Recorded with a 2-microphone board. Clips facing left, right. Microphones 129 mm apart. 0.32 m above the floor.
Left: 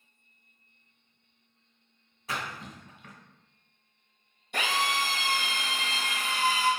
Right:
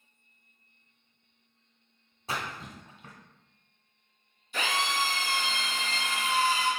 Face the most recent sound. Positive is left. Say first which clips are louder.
# left 1 dB
turn(degrees=65)  # may be behind; listen again after turning